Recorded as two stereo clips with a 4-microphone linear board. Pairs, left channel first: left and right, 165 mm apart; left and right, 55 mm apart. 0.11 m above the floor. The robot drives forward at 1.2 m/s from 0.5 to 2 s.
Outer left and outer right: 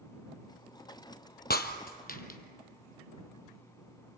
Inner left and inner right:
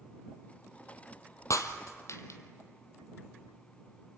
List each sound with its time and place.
1.5 s breaking glass: 70° left (ahead or behind), 1.3 m; by 2.4 s 60° left (ahead or behind), 1.4 m